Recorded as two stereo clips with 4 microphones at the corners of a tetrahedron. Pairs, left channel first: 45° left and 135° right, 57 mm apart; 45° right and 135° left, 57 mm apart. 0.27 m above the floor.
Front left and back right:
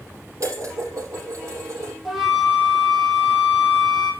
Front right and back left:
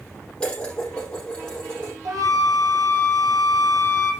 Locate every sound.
0.4 s dishes clattering: 120° right, 6 m
2.0 s a flute: 135° left, 3.5 m